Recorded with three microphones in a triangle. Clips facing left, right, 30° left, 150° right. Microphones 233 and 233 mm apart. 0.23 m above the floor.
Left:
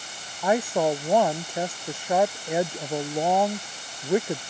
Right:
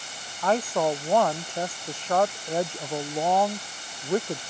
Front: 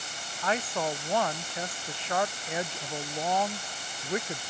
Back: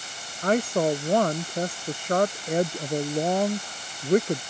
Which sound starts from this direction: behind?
A woman speaking, at 0.4 s.